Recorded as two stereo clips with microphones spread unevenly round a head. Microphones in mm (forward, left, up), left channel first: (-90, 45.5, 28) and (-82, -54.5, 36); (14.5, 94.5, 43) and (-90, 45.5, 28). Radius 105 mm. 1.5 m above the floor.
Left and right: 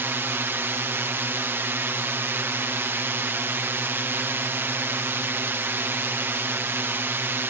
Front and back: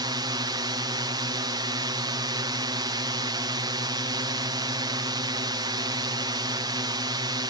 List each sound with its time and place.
0.0 s a drone: 145° right